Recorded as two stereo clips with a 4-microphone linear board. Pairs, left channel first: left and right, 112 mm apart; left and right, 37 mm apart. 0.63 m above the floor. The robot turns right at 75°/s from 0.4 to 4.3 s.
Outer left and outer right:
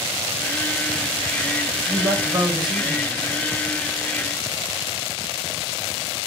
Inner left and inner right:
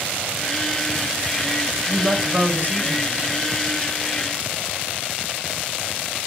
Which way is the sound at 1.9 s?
170° right.